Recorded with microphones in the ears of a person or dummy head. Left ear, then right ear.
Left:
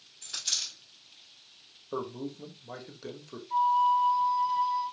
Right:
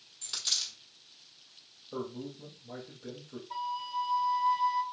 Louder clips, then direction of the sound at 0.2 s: Even; 25° right (ahead or behind).